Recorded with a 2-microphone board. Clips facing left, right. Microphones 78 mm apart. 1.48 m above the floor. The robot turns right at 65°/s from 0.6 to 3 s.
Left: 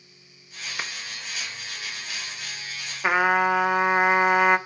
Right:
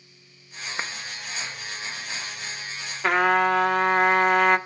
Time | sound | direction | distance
0.8 | a clap | 35° right (ahead or behind) | 1.3 m
3.0 | a trumpet | 5° left (ahead or behind) | 1.2 m